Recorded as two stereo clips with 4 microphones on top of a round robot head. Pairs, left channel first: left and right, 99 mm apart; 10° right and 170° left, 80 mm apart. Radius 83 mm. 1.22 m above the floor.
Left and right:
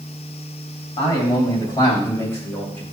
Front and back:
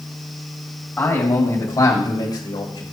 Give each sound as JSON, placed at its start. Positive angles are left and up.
{"t": 1.0, "sound": "a man speaking", "azimuth_deg": 50, "distance_m": 3.5}